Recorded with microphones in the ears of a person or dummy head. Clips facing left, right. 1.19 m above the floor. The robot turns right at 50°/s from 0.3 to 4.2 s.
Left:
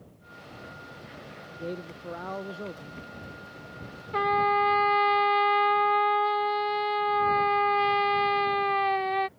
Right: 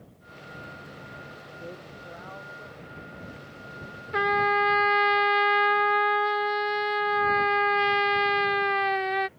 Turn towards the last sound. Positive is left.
turn(degrees=-10)  # may be behind; listen again after turning